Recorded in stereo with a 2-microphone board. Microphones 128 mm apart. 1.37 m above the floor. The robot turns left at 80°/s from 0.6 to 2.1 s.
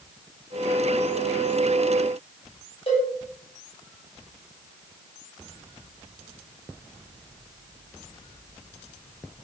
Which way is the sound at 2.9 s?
45° left (ahead or behind).